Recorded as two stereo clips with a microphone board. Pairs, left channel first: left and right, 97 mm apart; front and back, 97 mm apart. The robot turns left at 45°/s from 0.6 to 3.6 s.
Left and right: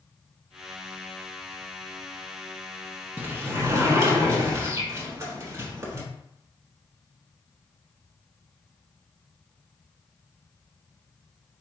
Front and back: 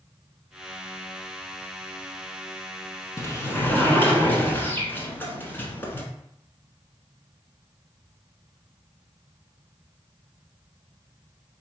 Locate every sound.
3.2 s a sliding door: 35° right, 1.0 m; by 6.0 s 55° right, 1.0 m